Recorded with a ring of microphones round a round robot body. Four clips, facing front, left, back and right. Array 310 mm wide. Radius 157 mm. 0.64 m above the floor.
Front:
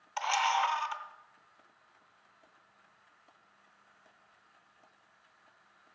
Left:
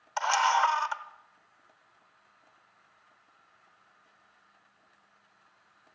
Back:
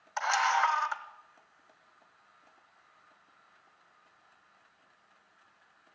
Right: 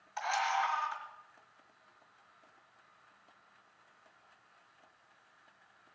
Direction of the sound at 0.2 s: 100° left.